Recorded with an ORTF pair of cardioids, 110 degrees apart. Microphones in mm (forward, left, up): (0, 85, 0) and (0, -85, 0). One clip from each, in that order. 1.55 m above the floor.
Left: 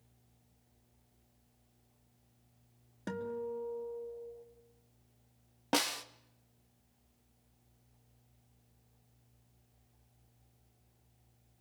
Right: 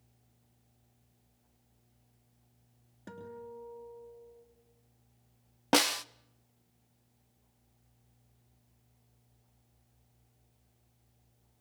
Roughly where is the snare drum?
Ahead right.